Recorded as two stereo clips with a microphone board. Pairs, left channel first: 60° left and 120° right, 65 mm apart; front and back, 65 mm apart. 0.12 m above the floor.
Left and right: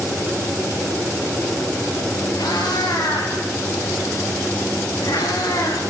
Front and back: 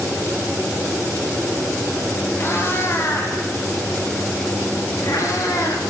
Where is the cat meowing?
55° left, 8 m; by 5.9 s 35° left, 6.5 m.